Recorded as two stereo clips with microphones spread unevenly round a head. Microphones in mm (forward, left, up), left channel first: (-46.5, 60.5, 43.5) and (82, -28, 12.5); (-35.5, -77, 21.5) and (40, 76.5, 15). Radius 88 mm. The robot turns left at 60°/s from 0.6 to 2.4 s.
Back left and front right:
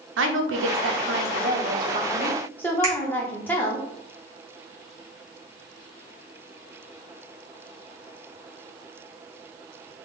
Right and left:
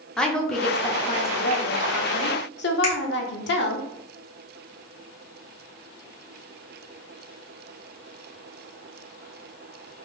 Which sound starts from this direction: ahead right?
A woman speaking, at 0.2 s.